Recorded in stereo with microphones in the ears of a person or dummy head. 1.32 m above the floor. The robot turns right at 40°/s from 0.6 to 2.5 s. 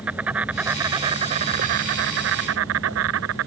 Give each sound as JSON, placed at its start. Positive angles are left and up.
{"t": 0.0, "sound": "an insect", "azimuth_deg": -175}